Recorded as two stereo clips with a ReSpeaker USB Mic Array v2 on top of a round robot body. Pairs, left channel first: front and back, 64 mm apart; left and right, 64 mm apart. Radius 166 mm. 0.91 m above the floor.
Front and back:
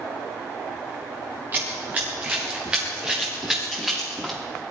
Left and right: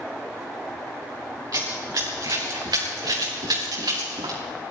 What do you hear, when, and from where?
1.5 s running footsteps: 120° right, 4.5 m; by 4.4 s 90° right, 6 m